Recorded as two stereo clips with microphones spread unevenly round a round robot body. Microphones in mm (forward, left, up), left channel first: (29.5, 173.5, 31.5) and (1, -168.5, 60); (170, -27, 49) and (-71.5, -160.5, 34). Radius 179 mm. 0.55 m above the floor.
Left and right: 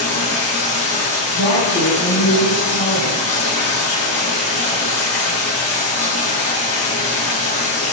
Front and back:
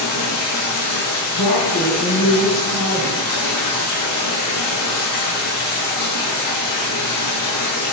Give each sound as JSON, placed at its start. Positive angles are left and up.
{"t": 0.0, "sound": "running water", "azimuth_deg": 15, "distance_m": 7.0}
{"t": 1.3, "sound": "a woman speaking", "azimuth_deg": 55, "distance_m": 5.0}